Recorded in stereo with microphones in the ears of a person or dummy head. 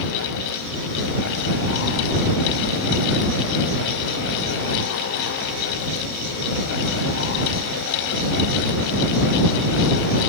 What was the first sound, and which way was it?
Only background noise.